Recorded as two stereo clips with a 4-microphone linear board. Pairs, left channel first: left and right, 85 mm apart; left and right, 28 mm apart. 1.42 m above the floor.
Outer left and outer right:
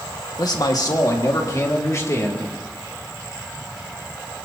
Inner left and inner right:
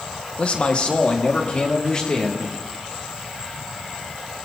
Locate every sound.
0.4 s a man speaking: 50° left (ahead or behind), 1.6 m; by 2.6 s 35° left (ahead or behind), 3 m